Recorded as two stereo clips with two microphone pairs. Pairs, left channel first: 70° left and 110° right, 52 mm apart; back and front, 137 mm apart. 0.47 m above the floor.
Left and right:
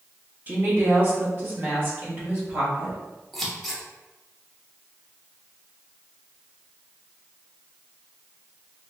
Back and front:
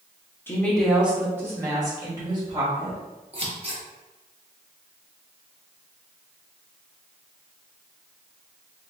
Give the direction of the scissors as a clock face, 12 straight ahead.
12 o'clock.